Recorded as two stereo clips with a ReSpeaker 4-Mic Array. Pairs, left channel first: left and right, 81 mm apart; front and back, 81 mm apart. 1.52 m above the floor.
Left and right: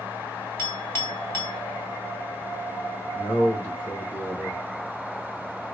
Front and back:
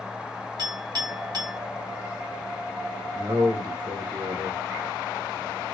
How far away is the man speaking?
About 1.3 m.